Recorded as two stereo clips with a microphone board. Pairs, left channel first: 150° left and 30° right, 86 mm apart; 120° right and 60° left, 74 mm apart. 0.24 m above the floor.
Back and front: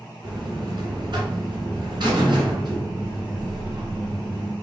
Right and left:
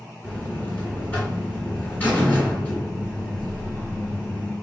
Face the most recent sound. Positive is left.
turn(degrees=-50)